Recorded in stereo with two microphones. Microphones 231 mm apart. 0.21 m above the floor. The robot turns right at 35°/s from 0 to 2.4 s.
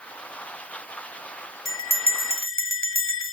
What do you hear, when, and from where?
1.6 s a bell: 60° left (ahead or behind), 0.5 m; by 3.3 s 65° left (ahead or behind), 0.5 m